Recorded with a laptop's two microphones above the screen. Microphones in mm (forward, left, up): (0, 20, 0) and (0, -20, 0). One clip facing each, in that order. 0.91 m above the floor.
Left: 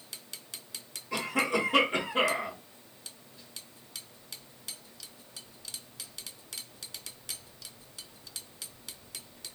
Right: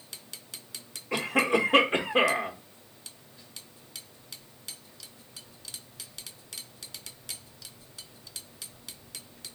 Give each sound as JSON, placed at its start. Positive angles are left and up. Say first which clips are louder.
{"t": 1.1, "sound": "a cough", "louder": "right 4 dB", "side_deg": -35, "distance_m": 0.7}